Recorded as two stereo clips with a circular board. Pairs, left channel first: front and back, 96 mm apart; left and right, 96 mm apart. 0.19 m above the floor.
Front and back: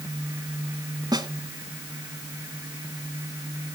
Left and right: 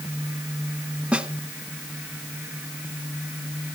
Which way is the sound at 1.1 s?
165° right.